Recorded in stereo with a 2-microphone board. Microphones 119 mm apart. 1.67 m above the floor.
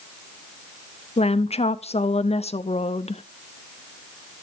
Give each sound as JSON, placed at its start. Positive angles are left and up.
{"t": 1.2, "sound": "a woman speaking", "side_deg": 60, "distance_m": 0.5}